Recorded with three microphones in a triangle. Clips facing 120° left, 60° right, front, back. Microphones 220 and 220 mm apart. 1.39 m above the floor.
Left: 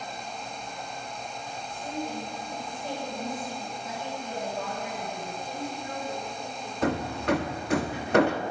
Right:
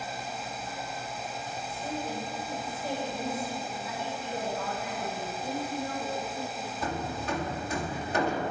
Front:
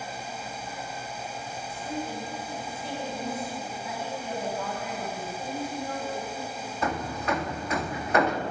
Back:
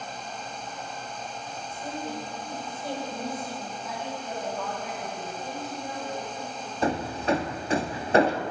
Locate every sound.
1.7 s a woman speaking: 140° right, 8.5 m
3.8 s a woman speaking: 80° left, 8.5 m
5.4 s a woman speaking: 95° right, 6.5 m
6.8 s hammering: 125° left, 1.5 m